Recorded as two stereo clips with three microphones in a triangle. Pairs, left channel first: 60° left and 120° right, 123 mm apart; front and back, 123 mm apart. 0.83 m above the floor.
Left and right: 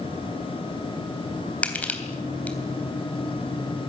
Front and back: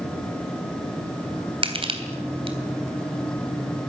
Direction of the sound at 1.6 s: 140° left.